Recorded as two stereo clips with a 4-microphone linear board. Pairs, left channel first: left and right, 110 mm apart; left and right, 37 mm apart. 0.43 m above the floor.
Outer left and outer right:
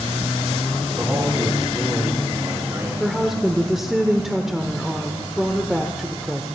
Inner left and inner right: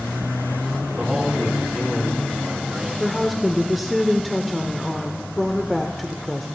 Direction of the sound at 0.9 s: 20° right (ahead or behind).